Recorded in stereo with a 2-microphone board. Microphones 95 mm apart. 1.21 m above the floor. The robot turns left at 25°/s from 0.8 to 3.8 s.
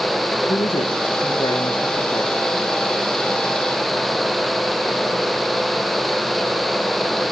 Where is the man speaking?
85° left, 2 m; by 2.3 s 45° left, 2 m.